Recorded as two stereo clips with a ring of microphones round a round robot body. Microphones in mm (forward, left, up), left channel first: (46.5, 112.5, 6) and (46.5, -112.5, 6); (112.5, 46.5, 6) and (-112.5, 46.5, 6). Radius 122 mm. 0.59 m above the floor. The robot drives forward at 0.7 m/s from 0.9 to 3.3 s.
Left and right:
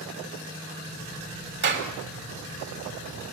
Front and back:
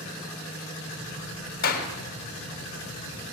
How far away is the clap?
About 3.5 m.